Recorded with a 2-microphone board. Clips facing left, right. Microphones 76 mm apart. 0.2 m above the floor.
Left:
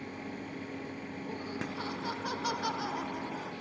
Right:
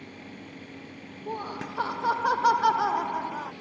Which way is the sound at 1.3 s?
65° right (ahead or behind).